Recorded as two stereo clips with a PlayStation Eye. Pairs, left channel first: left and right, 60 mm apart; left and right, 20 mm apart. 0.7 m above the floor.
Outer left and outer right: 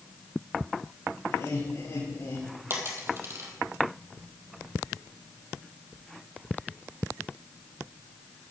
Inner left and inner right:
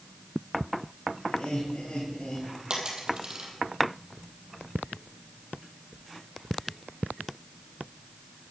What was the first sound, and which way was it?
Laughter, 70° left (ahead or behind).